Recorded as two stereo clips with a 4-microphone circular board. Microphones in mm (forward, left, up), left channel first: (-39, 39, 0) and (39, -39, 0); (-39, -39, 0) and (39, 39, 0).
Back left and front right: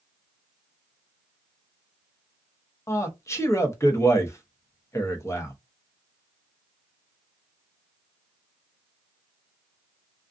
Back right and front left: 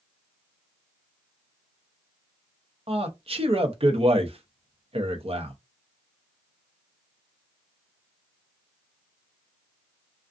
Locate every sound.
2.9 s a man speaking: 70° left, 0.7 m